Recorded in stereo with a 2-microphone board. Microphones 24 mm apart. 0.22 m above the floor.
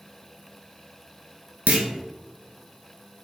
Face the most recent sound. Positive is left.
turn(degrees=-70)  # may be behind; listen again after turning